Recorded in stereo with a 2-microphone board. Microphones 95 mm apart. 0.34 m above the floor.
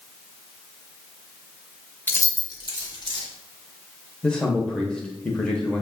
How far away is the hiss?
I don't hear a hiss.